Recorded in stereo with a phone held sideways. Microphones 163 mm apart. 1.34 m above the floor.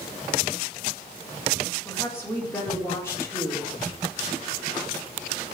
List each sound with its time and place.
1.9 s a woman speaking: 15° left (ahead or behind), 4 m